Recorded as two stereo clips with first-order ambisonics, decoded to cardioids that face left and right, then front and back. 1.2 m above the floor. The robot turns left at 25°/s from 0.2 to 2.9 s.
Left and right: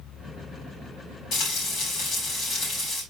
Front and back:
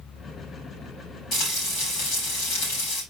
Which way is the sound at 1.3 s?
55° left.